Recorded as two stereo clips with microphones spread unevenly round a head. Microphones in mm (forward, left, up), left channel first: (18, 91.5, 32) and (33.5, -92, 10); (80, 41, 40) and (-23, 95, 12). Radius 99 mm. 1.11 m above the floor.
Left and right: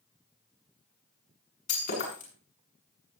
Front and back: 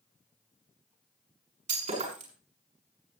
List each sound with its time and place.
1.7 s breaking glass: 145° left, 6.5 m